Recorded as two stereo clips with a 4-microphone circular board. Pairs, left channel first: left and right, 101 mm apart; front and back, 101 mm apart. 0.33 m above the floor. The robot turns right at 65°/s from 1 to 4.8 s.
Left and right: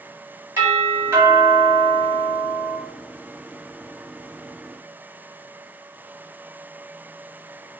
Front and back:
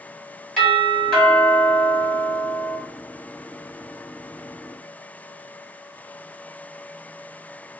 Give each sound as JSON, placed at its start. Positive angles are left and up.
{"t": 0.6, "sound": "a doorbell", "azimuth_deg": -75, "distance_m": 1.5}